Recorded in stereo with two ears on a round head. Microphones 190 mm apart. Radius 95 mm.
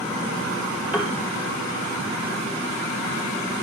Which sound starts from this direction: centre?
A piano, at 0.9 s.